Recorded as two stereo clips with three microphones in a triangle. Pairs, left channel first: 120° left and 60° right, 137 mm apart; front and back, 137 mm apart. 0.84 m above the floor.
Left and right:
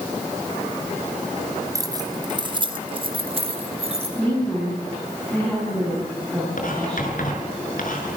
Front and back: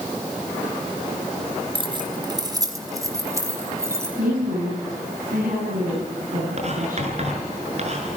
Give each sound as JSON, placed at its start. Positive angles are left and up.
{"t": 1.8, "sound": "keys jangling", "azimuth_deg": -125, "distance_m": 2.5}
{"t": 4.2, "sound": "a woman speaking", "azimuth_deg": -160, "distance_m": 10.0}
{"t": 6.6, "sound": "writing", "azimuth_deg": 140, "distance_m": 6.0}